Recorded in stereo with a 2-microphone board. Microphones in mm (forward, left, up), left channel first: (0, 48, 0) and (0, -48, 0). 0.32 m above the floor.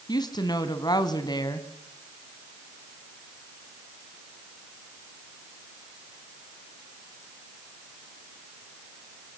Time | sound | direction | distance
0.1 | a woman speaking | 45° left (ahead or behind) | 2.5 m